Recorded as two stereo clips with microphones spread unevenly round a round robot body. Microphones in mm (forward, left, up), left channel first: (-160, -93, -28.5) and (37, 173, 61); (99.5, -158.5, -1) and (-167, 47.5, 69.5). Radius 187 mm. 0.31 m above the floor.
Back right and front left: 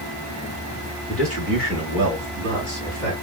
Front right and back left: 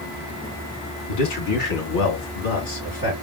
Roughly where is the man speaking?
Ahead right.